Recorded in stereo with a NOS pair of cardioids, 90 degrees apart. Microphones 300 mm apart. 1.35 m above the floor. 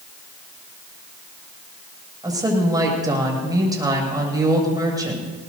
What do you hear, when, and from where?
2.2 s a woman speaking: 15° right, 7 m